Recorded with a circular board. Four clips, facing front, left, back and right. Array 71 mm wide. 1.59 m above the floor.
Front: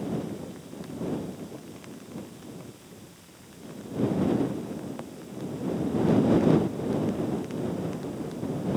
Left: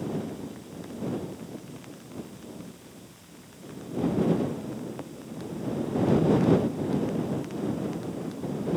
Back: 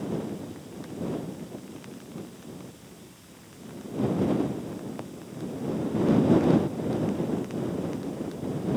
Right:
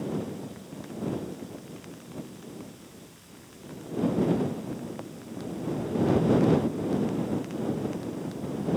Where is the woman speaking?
I don't hear a woman speaking.